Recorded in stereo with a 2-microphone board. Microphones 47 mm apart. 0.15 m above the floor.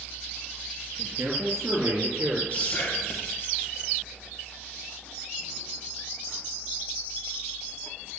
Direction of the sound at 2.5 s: 35° left (ahead or behind).